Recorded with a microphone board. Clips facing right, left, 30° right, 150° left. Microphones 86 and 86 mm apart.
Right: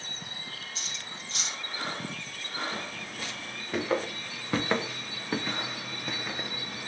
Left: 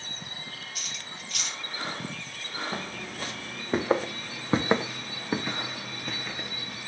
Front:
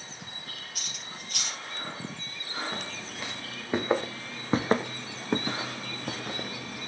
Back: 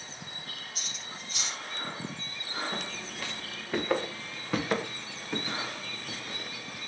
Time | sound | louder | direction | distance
0.8 | cutlery clinking | even, even | 35° right | 2.5 m
2.7 | footsteps | left 2 dB, even | 50° left | 2 m